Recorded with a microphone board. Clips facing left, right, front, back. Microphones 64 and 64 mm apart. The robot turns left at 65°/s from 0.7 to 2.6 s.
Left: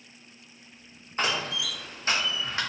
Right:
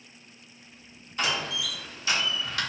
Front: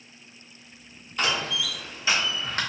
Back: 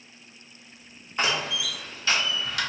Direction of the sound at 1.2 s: 125° left.